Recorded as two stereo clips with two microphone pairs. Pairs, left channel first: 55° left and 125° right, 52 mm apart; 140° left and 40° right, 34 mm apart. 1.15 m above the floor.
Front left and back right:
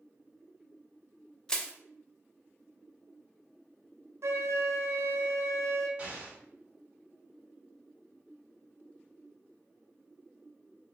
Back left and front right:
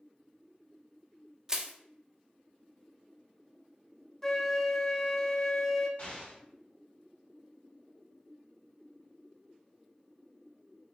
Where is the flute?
140° right, 0.5 m.